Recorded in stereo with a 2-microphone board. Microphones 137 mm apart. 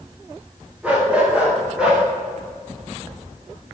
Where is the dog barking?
10° right (ahead or behind), 8.5 m; by 2.0 s 5° right (ahead or behind), 8 m.